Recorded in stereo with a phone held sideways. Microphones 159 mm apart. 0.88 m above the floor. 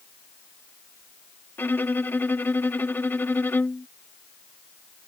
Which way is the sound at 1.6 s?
15° left (ahead or behind).